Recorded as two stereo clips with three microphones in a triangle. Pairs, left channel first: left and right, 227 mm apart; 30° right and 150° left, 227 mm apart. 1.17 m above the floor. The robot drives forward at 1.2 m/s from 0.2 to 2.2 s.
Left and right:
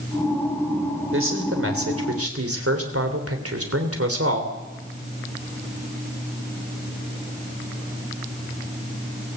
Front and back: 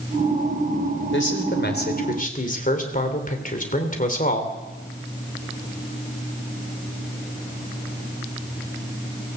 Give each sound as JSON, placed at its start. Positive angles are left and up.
{"t": 1.1, "sound": "a man speaking", "azimuth_deg": -65, "distance_m": 3.5}